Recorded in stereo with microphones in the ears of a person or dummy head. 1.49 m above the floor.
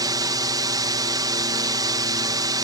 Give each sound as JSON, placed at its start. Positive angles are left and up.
{"t": 0.0, "sound": "a drone", "side_deg": -20}